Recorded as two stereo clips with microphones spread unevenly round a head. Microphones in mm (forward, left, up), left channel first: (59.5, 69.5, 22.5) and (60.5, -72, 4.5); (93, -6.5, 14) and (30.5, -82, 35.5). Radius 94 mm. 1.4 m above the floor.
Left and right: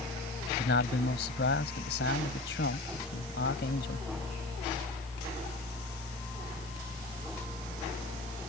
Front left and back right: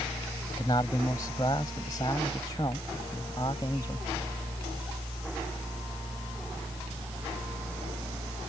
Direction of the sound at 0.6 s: 120° left.